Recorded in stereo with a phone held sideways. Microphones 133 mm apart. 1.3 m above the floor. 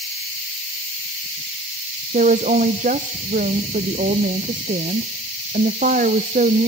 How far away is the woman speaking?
About 0.5 m.